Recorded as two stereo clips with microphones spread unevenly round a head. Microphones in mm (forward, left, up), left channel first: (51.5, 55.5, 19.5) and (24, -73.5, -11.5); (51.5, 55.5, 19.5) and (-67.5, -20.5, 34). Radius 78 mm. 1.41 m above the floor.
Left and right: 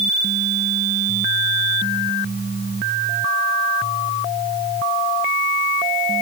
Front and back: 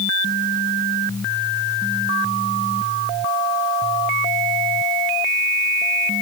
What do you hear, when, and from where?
Only background noise.